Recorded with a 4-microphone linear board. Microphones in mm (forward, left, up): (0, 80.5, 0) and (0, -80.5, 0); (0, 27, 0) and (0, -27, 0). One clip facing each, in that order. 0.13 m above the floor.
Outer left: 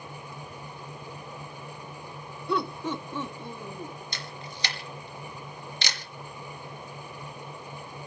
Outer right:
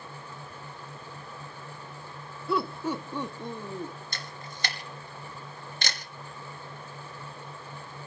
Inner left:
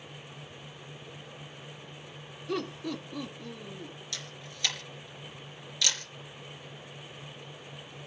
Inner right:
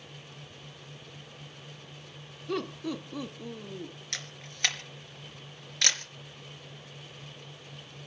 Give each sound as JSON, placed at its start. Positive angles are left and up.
{"t": 2.5, "sound": "laughter", "side_deg": 0, "distance_m": 1.8}
{"t": 4.1, "sound": "a camera shutter", "side_deg": -50, "distance_m": 2.5}